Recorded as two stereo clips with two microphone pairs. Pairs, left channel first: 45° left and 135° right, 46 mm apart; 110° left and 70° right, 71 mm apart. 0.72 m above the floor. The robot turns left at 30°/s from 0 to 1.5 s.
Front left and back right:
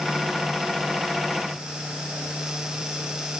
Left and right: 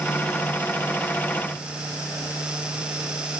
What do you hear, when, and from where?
Only background noise.